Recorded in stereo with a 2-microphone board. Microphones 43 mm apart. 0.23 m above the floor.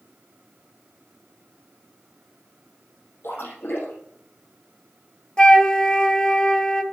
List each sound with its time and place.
3.2 s a splash: 70° left (ahead or behind), 5 m
5.4 s a flute: 20° left (ahead or behind), 0.9 m